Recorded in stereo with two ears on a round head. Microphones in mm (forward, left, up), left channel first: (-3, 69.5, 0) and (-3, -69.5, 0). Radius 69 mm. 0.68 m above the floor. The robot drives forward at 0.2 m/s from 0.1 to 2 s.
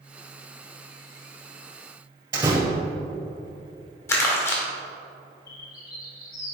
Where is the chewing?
No chewing in this recording.